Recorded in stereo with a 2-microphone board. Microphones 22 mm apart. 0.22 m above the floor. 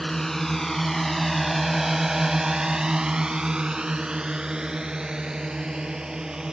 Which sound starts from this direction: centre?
A drone, at 0.0 s.